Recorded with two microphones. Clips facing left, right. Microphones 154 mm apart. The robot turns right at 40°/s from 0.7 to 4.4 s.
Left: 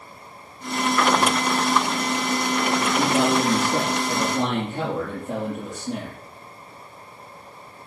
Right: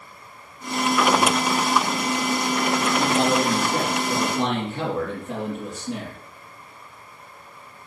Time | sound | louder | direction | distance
3.0 | a man speaking | left 1 dB | 75° left | 4 m